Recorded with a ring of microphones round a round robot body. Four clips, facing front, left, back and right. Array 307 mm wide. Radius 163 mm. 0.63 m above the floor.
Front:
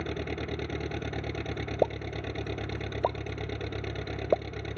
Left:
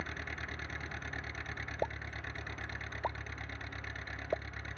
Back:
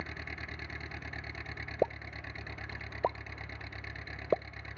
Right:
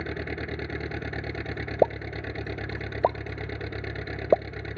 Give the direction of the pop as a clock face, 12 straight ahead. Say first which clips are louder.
Right 15 dB, front 4 dB; 3 o'clock.